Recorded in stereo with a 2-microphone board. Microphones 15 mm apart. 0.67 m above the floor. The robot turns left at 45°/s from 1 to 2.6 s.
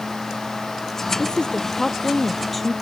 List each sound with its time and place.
1.2 s a woman speaking: 75° left; by 2.7 s 10° left